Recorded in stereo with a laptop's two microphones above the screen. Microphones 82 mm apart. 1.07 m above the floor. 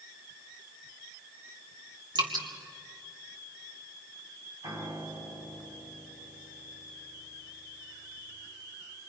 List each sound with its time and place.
2.1 s dripping: 65° right (ahead or behind), 3 m
4.6 s a piano: 55° right (ahead or behind), 5 m